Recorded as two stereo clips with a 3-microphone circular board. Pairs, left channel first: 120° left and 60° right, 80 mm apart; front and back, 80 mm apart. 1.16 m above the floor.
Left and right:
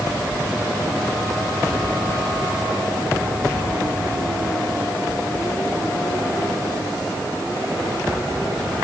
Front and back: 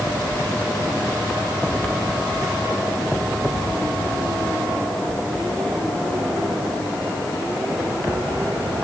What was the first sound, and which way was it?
Only background noise.